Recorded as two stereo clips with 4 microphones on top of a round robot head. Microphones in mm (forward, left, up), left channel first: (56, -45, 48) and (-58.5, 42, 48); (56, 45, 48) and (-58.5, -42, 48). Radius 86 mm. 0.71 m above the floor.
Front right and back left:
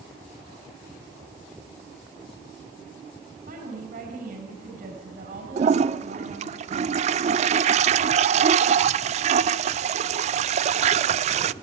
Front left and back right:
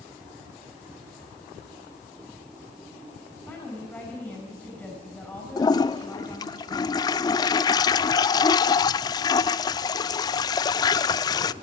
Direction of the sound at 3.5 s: 120° left.